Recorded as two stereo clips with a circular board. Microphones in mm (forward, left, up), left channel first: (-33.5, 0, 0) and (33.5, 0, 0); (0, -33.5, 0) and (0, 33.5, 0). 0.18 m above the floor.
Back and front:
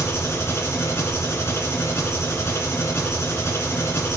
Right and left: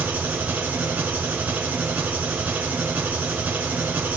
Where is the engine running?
150° left, 2 m.